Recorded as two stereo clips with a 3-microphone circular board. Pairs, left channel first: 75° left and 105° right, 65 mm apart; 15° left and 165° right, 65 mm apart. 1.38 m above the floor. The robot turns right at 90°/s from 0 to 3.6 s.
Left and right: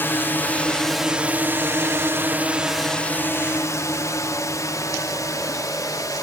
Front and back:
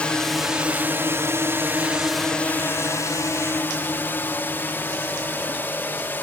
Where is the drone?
70° left.